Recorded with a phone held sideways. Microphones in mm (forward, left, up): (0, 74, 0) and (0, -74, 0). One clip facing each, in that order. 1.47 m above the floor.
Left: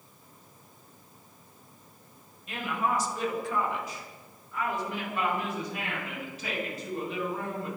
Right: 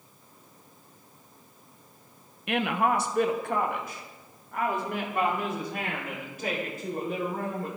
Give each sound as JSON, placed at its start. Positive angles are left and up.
{"t": 2.5, "sound": "a woman speaking", "side_deg": -70, "distance_m": 1.1}